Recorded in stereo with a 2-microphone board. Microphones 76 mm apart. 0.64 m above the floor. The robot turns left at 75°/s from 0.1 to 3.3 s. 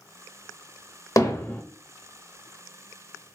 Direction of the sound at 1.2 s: 45° left (ahead or behind).